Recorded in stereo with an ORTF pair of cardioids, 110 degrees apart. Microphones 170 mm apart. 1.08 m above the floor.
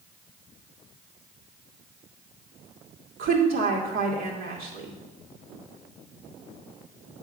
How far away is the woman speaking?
About 2 m.